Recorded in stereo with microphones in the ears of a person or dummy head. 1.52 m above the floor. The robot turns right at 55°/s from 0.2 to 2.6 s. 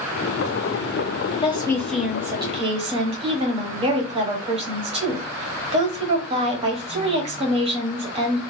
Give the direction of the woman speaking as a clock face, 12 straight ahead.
7 o'clock.